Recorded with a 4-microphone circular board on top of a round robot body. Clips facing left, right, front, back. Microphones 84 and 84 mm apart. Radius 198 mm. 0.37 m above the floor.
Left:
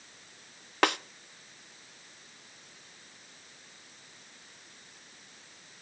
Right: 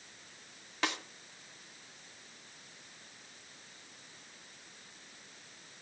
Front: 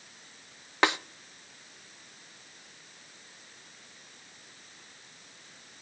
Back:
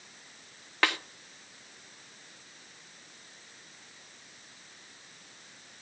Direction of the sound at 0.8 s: 70° left.